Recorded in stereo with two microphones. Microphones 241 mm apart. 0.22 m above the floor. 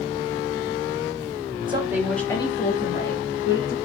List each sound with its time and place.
1.7 s a woman speaking: 20° right (ahead or behind), 1.0 m; by 3.8 s 55° left (ahead or behind), 1.8 m